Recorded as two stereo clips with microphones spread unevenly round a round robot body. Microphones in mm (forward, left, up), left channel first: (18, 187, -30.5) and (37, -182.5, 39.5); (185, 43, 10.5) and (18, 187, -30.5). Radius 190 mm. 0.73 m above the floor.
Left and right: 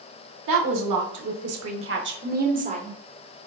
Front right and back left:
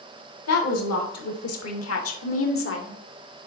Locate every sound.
0.5 s a woman speaking: 50° right, 2 m; by 3.0 s 10° right, 2.0 m